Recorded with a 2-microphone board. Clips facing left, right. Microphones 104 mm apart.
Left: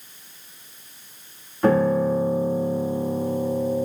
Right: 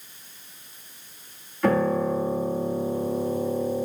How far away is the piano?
About 6.5 m.